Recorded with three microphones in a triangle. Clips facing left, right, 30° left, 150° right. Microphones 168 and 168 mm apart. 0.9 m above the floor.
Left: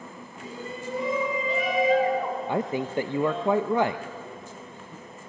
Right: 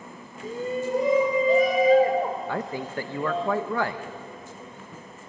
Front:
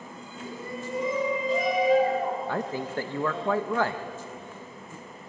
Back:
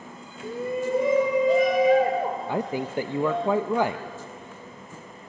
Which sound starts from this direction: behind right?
A shout, at 0.4 s.